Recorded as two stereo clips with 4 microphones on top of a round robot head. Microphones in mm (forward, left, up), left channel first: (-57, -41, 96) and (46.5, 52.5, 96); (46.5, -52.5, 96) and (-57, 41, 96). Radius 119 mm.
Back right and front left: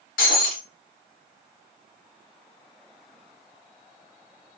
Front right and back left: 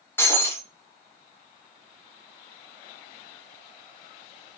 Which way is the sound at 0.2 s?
115° right.